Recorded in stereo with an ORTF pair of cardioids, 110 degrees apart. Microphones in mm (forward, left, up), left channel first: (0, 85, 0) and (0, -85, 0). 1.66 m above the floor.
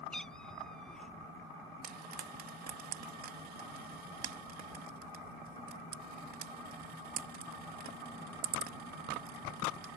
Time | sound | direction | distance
0.1 | a cat meowing | 5° left | ?
1.8 | frying | 60° right | ?